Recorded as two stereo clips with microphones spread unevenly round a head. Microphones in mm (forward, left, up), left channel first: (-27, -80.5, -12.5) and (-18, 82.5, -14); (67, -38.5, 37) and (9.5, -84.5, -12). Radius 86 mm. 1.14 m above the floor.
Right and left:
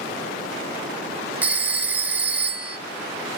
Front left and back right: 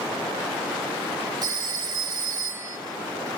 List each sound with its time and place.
1.4 s a phone ringing: 170° left, 0.6 m